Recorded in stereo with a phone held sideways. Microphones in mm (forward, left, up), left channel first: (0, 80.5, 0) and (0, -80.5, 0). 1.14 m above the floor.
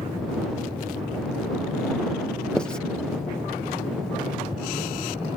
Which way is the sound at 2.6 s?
5° left (ahead or behind).